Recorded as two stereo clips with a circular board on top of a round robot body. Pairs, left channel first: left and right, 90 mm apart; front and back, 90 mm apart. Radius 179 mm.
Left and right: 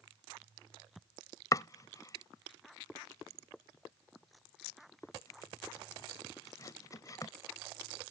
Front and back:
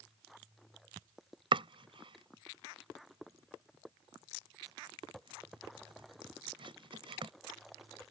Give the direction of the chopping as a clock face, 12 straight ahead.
7 o'clock.